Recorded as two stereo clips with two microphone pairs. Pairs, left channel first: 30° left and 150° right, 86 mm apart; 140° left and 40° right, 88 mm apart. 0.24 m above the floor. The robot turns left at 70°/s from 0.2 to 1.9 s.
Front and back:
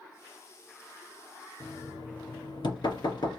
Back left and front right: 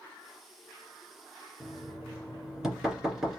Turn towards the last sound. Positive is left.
turn(degrees=45)